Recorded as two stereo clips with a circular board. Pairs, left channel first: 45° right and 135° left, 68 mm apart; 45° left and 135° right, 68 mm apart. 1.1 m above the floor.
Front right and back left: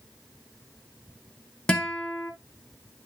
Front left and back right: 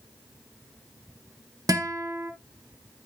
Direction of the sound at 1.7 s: 120° right.